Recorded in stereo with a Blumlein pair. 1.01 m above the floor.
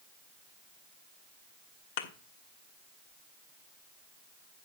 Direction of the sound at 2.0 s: 50° left.